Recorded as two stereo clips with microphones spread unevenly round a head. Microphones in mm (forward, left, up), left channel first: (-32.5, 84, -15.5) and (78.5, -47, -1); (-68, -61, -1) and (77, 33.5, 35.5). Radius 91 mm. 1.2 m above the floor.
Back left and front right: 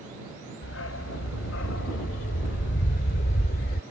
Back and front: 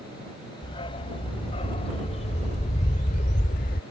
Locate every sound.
0.6 s a dog barking: 145° left; by 3.8 s 165° left